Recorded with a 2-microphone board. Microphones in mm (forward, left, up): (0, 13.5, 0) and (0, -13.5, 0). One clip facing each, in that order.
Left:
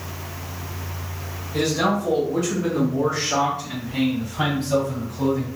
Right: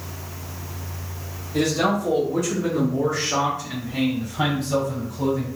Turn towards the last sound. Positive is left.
turn(degrees=60)  # may be behind; listen again after turning